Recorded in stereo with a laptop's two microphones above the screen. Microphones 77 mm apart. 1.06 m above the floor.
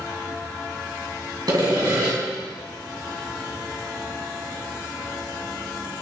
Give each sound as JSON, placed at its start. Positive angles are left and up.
{"t": 1.5, "sound": "sawing", "side_deg": -60, "distance_m": 2.0}